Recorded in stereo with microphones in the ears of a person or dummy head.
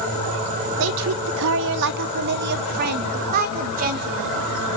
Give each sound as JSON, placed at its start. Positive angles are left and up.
{"t": 0.8, "sound": "a woman speaking", "side_deg": -65, "distance_m": 0.9}